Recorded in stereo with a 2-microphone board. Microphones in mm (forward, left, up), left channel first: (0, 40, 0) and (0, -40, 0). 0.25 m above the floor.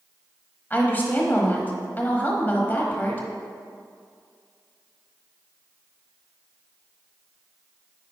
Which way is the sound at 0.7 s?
25° left (ahead or behind).